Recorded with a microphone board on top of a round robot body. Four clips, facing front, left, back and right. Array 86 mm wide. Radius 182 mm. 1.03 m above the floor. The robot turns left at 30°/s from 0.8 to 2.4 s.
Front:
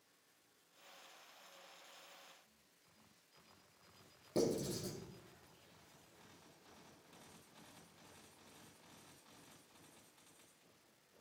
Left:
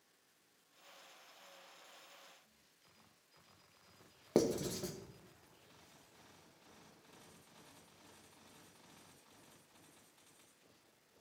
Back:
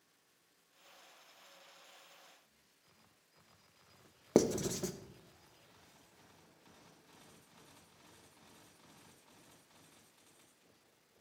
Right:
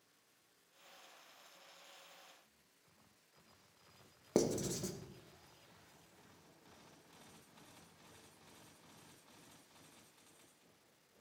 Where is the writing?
175° left, 1.0 m.